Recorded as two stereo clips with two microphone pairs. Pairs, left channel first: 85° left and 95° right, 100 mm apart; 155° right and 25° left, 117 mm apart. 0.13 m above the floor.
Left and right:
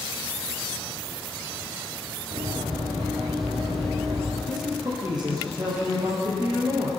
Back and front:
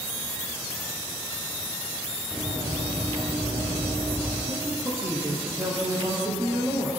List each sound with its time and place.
2.3 s running footsteps: 80° right, 7.5 m; by 4.4 s 85° right, 10 m
4.5 s a man speaking: 50° right, 5.5 m